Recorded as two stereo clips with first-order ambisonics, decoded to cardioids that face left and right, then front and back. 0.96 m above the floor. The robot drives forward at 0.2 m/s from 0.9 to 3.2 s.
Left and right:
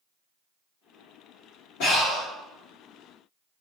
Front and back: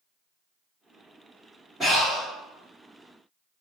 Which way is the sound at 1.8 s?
100° left.